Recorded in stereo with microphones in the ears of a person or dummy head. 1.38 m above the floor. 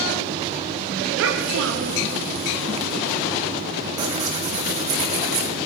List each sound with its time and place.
1.2 s a child speaking: 70° right (ahead or behind), 1.1 m
4.0 s tearing paper: 35° right (ahead or behind), 1.8 m